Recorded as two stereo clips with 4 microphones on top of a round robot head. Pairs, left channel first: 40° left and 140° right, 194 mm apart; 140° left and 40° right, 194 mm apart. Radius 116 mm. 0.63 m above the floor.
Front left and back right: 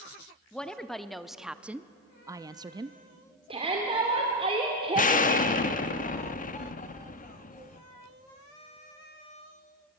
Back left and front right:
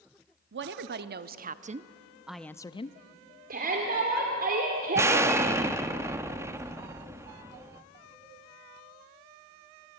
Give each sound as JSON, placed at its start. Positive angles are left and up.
{"t": 0.5, "sound": "a woman speaking", "azimuth_deg": -45, "distance_m": 1.3}
{"t": 3.5, "sound": "a shout", "azimuth_deg": -80, "distance_m": 2.5}
{"t": 5.0, "sound": "an explosion", "azimuth_deg": 30, "distance_m": 1.1}